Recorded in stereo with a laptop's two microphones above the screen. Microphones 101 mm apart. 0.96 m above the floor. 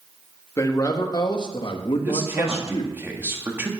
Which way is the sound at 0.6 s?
30° left (ahead or behind).